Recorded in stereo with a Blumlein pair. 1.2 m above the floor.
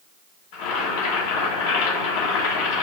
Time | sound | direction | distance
0.5 | boiling | 50° left | 1.5 m